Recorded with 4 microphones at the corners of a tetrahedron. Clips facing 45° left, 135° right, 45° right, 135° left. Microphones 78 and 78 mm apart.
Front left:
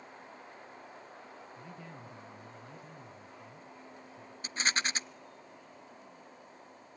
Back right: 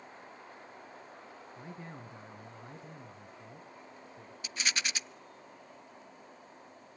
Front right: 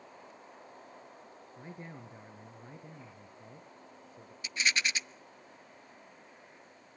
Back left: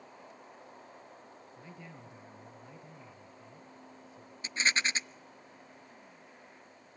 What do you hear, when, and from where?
1.6 s a man speaking: 85° right, 1.9 m
4.4 s a rattle: 90° left, 0.6 m